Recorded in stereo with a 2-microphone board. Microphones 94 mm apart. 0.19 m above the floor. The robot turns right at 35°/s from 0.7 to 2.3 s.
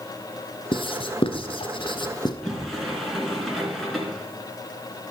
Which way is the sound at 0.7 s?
60° left (ahead or behind).